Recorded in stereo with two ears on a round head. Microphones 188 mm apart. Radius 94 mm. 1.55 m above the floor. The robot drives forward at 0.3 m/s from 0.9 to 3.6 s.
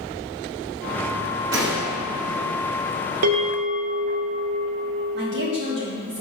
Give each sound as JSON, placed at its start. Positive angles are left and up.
{"t": 1.5, "sound": "a gunshot", "side_deg": -60, "distance_m": 1.4}
{"t": 3.2, "sound": "a bell", "side_deg": -70, "distance_m": 0.8}
{"t": 5.2, "sound": "a woman speaking", "side_deg": -55, "distance_m": 1.5}